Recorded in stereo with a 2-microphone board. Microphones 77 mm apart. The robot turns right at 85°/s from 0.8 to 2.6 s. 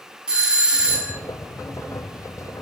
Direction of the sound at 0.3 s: 160° right.